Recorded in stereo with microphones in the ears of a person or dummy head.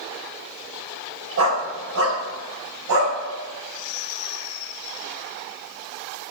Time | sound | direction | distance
1.4 | a dog barking | 70° right (ahead or behind) | 3.5 m